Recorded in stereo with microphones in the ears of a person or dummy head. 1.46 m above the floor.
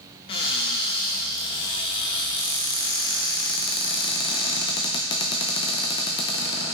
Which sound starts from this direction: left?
A cupboard door, at 0.3 s.